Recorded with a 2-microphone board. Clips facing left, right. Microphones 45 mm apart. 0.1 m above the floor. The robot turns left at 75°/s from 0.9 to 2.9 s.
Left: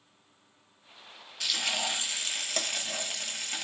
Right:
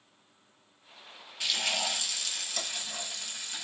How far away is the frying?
About 0.9 m.